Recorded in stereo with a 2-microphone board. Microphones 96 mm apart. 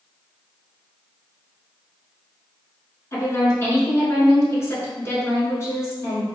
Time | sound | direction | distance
3.1 | a woman speaking | 30° left (ahead or behind) | 1.3 m